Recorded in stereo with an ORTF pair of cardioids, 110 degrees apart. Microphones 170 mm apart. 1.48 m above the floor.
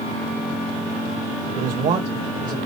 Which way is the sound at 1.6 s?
70° right.